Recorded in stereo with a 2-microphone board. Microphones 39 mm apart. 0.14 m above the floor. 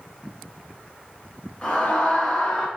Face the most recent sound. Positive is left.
turn(degrees=20)  # may be behind; listen again after turning